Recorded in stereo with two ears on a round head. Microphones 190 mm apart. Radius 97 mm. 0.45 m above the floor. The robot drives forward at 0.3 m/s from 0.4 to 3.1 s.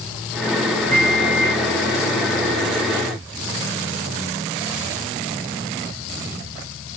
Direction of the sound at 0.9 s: 5° left (ahead or behind).